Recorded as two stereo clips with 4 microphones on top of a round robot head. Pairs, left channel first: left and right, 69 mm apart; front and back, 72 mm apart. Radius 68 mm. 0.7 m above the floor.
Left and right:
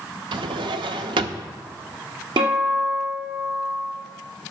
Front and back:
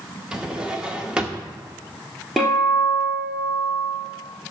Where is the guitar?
90° right, 2.5 m.